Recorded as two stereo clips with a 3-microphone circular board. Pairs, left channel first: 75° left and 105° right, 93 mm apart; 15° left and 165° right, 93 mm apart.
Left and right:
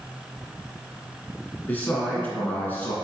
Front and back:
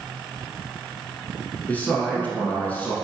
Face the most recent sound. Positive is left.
turn(degrees=55)